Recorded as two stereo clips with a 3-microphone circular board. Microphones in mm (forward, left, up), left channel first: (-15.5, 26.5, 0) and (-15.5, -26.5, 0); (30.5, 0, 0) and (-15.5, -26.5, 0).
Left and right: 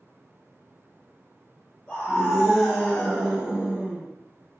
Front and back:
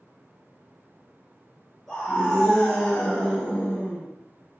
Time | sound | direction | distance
1.9 | a scream | 125° left | 1.1 m